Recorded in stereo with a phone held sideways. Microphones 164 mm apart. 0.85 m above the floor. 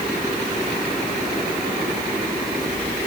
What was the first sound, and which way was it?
Only background noise.